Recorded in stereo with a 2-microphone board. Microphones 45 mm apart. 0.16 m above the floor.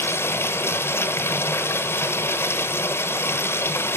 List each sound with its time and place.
0.0 s running water: 65° left (ahead or behind), 1.4 m